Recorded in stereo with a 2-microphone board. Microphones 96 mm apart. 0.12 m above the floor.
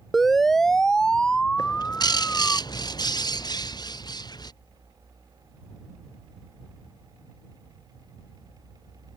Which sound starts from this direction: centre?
A siren, at 0.1 s.